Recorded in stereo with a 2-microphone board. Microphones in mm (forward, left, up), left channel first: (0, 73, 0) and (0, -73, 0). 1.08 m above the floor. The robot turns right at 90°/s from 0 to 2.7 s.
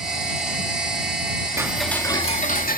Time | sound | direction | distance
1.6 | ticking | 20° right | ?